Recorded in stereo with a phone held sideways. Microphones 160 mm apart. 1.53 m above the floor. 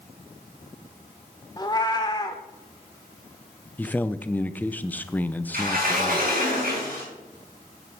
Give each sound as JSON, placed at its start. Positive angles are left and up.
{"t": 1.6, "sound": "a cat meowing", "side_deg": 25, "distance_m": 1.2}
{"t": 3.8, "sound": "a man speaking", "side_deg": 10, "distance_m": 0.6}
{"t": 5.5, "sound": "a sliding door", "side_deg": -60, "distance_m": 4.5}